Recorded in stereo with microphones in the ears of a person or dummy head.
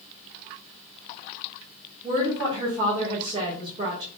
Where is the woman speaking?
30° right (ahead or behind), 1.5 m.